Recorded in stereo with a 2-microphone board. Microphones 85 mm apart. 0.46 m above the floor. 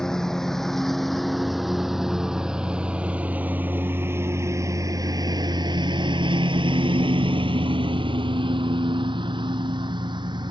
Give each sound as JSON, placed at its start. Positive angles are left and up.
{"t": 0.0, "sound": "a lawn mower", "side_deg": 5}